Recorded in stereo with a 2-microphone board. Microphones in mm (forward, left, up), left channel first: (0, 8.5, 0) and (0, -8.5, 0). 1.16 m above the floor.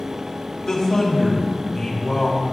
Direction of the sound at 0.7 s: 35° left (ahead or behind).